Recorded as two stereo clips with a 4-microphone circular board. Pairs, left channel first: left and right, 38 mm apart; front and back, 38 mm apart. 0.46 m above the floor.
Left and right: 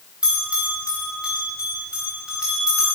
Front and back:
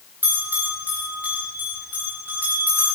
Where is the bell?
155° right, 9 m.